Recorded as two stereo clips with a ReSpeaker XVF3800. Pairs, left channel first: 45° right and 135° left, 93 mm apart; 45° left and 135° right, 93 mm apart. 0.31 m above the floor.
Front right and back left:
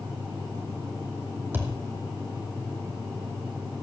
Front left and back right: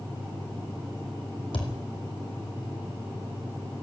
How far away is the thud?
About 2 m.